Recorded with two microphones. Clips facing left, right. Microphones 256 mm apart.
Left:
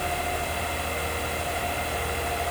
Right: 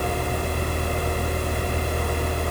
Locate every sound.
Only background noise.